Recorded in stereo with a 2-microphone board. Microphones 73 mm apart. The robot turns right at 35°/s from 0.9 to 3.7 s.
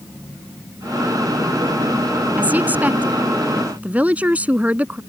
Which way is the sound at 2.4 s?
25° right (ahead or behind).